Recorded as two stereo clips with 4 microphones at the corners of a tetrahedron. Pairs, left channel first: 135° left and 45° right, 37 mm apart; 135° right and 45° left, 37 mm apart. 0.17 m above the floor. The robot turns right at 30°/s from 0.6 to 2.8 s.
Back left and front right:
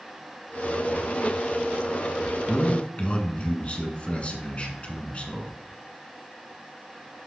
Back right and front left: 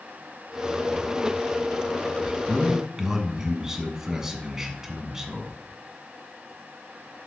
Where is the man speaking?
105° left, 1.5 m; by 5.5 s 115° left, 1.5 m.